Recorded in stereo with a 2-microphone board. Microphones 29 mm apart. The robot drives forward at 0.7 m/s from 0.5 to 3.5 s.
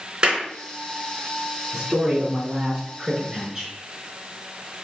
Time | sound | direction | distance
0.2 | a clap | 30° right (ahead or behind) | 3 m
1.7 | a man speaking | 30° right (ahead or behind) | 3 m